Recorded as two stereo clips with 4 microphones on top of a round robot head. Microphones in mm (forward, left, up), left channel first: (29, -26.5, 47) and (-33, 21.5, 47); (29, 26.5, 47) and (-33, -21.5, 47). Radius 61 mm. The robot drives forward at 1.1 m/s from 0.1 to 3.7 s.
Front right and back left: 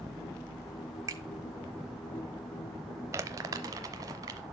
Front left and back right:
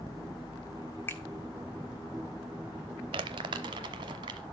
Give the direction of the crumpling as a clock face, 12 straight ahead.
5 o'clock.